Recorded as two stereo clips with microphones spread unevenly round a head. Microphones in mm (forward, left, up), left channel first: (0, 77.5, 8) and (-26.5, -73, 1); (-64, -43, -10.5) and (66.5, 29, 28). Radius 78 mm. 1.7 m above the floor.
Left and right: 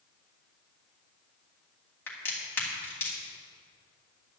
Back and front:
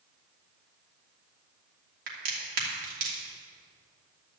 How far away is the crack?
About 3 m.